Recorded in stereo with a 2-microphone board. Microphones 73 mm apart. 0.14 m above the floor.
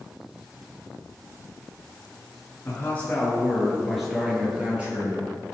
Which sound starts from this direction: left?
A man speaking, at 2.6 s.